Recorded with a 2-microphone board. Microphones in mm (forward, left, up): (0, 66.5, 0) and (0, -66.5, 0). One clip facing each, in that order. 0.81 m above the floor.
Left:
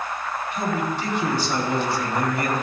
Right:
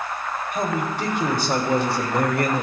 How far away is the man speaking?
About 3 m.